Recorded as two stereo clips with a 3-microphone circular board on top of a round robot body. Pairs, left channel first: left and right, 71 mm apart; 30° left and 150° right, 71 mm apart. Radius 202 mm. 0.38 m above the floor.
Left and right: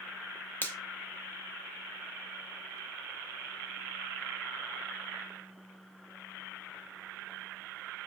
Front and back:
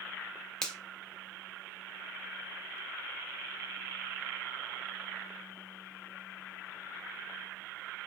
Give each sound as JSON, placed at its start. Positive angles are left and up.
{"t": 0.6, "sound": "a finger snap", "azimuth_deg": 100, "distance_m": 0.9}